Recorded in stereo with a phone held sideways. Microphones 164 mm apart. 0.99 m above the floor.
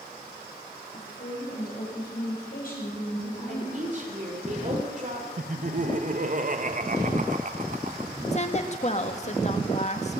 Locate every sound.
0.9 s a woman speaking: 75° left (ahead or behind), 6.5 m; by 4.5 s 40° left (ahead or behind), 4.5 m
3.5 s a woman speaking: 50° right (ahead or behind), 3 m
5.4 s laughter: 50° right (ahead or behind), 0.9 m
8.3 s a woman speaking: 45° left (ahead or behind), 1.1 m